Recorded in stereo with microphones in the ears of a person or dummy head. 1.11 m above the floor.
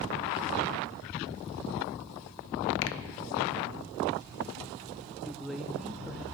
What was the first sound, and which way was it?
A finger snap, 60° left (ahead or behind).